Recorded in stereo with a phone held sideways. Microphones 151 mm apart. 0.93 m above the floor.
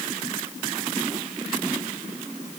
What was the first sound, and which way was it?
Only background noise.